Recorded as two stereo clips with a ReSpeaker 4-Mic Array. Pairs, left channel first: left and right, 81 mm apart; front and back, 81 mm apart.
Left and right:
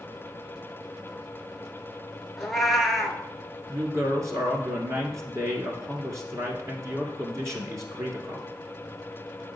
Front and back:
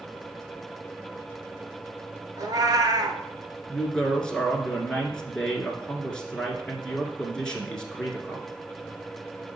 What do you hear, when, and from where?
2.4 s a cat meowing: 175° left, 0.8 m
3.7 s a woman speaking: 75° right, 1.4 m